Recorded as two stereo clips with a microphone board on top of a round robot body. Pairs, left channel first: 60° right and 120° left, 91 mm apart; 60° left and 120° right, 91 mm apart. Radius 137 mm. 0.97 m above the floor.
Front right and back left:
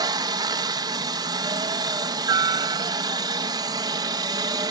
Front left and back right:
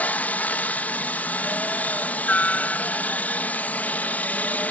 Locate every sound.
0.0 s a helicopter: 130° left